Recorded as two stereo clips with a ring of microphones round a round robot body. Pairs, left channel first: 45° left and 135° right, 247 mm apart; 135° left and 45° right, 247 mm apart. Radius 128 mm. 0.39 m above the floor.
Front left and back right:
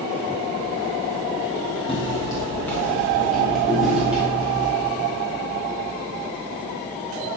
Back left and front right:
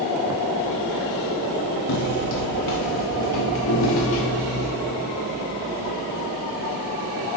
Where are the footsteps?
115° left, 1.0 m; by 4.7 s 140° left, 3 m.